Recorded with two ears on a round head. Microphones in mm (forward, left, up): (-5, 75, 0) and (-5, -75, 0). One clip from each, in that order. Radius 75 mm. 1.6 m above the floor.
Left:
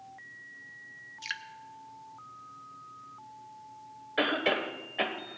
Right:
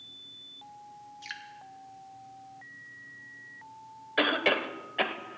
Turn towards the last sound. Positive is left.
turn(degrees=-15)  # may be behind; listen again after turning